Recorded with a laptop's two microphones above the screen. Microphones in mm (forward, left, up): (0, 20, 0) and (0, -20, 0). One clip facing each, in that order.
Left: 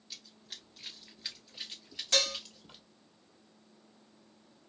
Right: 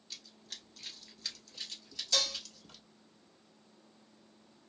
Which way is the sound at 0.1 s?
5° left (ahead or behind).